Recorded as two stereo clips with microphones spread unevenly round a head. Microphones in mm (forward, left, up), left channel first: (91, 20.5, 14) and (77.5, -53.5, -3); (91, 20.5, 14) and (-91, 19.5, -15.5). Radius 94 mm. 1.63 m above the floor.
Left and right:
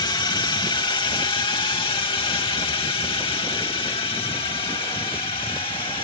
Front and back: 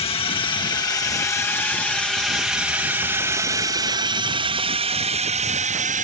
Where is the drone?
60° left; by 6.0 s 135° left.